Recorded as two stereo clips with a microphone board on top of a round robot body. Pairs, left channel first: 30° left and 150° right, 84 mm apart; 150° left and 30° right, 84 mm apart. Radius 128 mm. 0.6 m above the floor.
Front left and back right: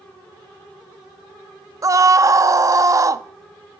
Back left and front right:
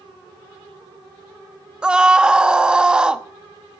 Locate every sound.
1.8 s a scream: 105° right, 0.9 m